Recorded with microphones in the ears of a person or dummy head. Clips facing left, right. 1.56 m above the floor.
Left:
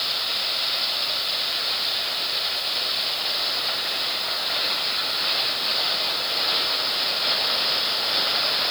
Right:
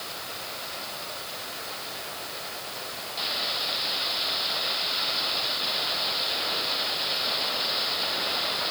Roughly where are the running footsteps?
No running footsteps in this recording.